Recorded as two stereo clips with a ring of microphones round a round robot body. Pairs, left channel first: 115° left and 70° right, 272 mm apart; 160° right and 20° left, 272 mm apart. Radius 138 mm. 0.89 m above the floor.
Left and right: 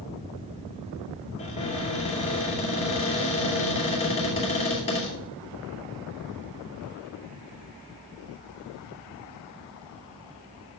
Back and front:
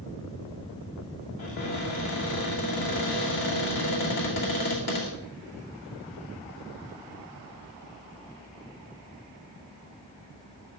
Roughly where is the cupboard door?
Behind.